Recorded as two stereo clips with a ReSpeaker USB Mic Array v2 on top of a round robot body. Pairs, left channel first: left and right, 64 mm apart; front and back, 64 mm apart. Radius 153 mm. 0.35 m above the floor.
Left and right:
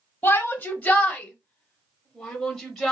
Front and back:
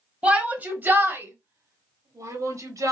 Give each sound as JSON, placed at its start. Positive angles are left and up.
{"t": 0.2, "sound": "a shout", "azimuth_deg": 125, "distance_m": 1.6}